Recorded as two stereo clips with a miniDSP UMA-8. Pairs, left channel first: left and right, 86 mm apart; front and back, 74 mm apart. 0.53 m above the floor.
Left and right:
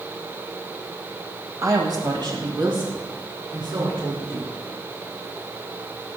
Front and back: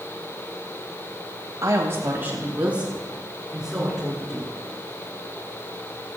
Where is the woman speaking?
135° right, 2.5 m; by 4.5 s 90° right, 6 m.